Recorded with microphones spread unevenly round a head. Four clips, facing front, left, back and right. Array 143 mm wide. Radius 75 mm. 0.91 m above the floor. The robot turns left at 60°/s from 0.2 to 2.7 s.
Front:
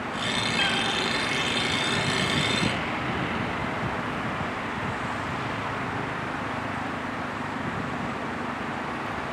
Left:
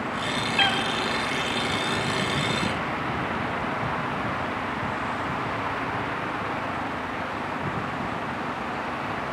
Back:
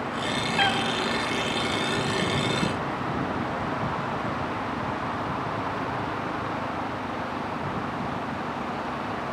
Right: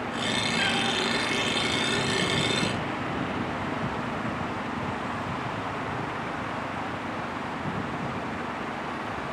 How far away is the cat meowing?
About 0.8 m.